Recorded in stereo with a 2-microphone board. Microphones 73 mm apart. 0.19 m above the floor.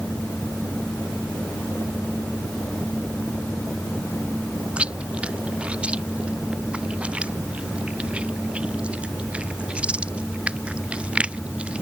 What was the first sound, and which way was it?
Chewing, 15° right (ahead or behind).